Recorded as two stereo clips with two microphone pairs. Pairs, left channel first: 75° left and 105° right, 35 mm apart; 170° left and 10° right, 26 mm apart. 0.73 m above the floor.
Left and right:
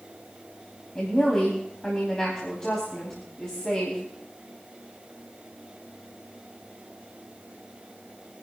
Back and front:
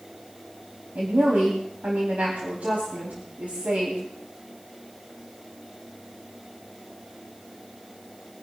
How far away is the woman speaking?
About 4 m.